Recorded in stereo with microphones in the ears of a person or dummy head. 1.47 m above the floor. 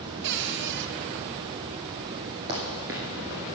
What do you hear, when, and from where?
0.2 s a cupboard door: 60° right (ahead or behind), 0.8 m
2.5 s running footsteps: 20° right (ahead or behind), 1.6 m; by 3.5 s centre (ahead or behind), 1.6 m